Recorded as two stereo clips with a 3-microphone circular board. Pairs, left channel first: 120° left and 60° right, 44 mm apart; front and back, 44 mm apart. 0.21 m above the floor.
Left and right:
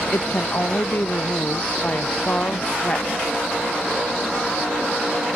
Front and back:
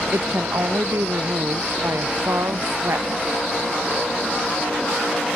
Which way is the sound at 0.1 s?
165° left.